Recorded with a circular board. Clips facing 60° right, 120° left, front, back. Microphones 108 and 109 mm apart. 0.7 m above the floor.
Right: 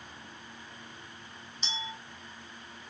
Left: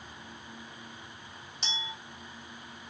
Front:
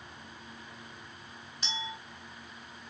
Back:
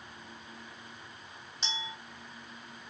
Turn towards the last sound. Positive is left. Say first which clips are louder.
# right 1 dB, front 1 dB
turn(degrees=120)